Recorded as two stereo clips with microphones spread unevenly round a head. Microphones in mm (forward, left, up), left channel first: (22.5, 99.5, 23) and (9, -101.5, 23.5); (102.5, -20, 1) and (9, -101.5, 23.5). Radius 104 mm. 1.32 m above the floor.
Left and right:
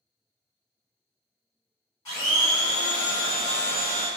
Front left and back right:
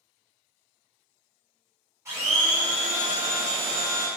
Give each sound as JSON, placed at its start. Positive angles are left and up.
{"t": 2.0, "sound": "a blender", "azimuth_deg": 160, "distance_m": 2.0}